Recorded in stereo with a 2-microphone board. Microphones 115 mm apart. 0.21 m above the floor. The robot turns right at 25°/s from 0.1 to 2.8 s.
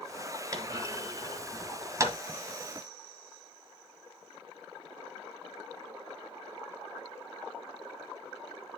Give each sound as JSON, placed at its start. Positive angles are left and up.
{"t": 0.5, "sound": "a clunk", "side_deg": -30, "distance_m": 1.5}